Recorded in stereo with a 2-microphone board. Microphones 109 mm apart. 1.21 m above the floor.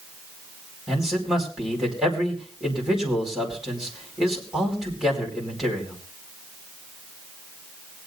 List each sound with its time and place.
0.9 s a man speaking: 5° right (ahead or behind), 5 m